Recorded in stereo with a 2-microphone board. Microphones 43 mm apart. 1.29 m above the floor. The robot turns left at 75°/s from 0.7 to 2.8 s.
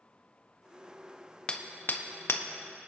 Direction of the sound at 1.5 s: 20° left (ahead or behind).